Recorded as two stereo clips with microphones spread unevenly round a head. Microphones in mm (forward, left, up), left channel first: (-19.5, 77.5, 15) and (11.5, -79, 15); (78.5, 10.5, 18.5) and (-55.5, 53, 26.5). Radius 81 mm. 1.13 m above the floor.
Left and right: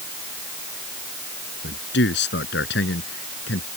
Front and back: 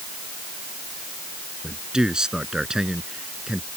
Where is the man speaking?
75° left.